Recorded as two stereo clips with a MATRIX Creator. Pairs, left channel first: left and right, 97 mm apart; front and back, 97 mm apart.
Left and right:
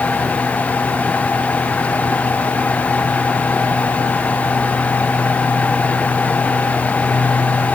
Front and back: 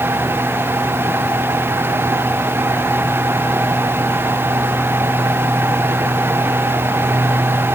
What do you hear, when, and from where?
Only background noise.